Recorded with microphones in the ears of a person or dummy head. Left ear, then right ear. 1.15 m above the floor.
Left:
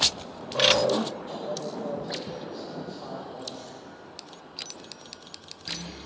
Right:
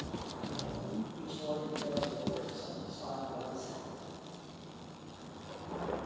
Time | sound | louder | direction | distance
1.2 | a man speaking | left 5 dB | 55° left (ahead or behind) | 1.0 m